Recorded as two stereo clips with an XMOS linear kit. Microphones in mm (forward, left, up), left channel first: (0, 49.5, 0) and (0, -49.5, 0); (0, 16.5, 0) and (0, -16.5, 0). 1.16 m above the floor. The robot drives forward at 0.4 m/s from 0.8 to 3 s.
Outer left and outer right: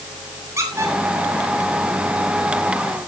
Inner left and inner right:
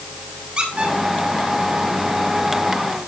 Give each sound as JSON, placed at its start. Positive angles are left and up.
{"t": 0.6, "sound": "a squeak", "side_deg": -30, "distance_m": 5.5}